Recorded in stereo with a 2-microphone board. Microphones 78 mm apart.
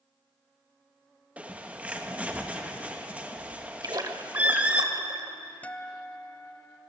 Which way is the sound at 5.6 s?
20° left (ahead or behind).